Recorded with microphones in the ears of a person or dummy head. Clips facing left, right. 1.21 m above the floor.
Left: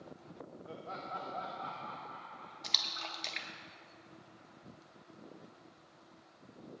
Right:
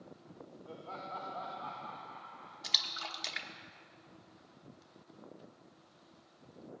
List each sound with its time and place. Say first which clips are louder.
0.7 s laughter: even; 20° left (ahead or behind), 1.3 m; by 3.4 s 50° left (ahead or behind), 2.5 m
2.6 s a splash: even; 5° right (ahead or behind), 1.0 m